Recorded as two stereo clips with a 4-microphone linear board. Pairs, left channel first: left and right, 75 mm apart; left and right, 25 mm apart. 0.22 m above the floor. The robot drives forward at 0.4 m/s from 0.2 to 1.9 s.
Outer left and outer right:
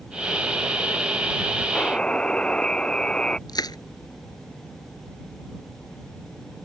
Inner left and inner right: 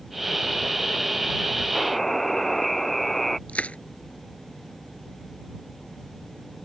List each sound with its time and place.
1.8 s a buzzer: 15° left (ahead or behind); by 3.4 s 10° left (ahead or behind)
3.5 s crushing: 65° left (ahead or behind)